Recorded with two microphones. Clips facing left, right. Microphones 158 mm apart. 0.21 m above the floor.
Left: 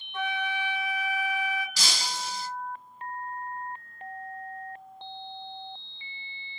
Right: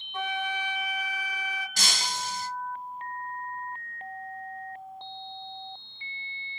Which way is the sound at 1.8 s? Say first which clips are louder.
Right 1 dB; 50° right (ahead or behind).